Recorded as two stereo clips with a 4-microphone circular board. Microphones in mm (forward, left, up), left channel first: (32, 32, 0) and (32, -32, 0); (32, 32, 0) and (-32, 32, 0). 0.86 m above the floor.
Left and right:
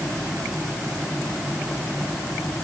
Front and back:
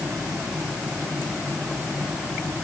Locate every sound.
Only background noise.